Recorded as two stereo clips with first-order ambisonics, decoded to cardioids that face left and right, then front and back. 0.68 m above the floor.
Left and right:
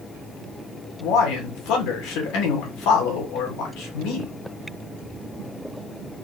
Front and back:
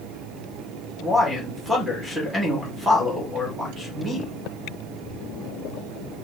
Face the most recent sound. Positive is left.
turn(degrees=95)